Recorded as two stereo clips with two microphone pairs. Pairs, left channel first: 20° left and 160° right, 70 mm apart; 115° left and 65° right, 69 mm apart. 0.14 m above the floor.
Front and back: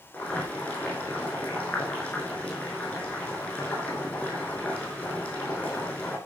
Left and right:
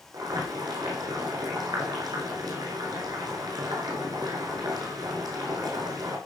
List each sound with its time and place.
0.1 s boiling: 45° right, 5.5 m